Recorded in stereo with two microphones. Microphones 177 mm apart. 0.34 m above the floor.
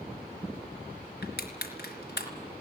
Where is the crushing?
80° left, 3.5 m.